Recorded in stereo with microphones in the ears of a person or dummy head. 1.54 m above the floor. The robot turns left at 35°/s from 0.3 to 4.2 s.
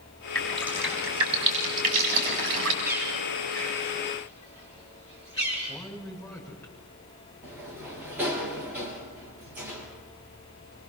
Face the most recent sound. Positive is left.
turn(degrees=-10)  # may be behind; listen again after turning